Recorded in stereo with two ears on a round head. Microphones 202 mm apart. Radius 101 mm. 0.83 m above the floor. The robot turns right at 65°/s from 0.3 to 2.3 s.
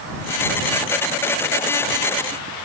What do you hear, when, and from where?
Only background noise.